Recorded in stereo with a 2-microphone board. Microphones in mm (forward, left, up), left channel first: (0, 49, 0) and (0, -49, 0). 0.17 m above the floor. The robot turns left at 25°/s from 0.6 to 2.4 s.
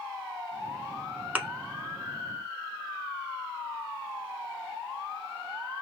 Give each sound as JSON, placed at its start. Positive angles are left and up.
{"t": 1.4, "sound": "a thud", "side_deg": -20, "distance_m": 0.7}